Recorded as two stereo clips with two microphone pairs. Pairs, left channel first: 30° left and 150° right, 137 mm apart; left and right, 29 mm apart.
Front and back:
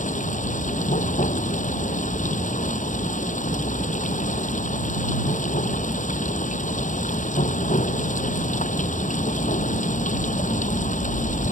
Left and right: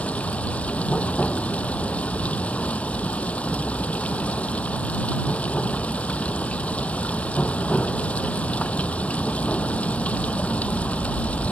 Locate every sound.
0.0 s running water: 50° left